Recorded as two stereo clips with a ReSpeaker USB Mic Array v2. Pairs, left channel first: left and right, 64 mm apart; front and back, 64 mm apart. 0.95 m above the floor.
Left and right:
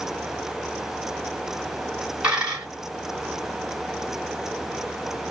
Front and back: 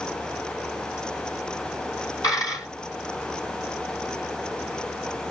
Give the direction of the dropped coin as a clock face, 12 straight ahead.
1 o'clock.